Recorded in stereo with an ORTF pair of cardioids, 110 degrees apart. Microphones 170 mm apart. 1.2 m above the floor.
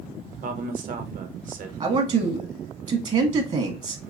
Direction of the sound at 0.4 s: 55° right.